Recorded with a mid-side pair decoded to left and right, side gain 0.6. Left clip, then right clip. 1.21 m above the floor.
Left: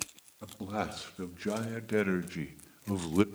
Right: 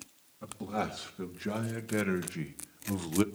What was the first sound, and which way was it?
A man speaking, 5° left.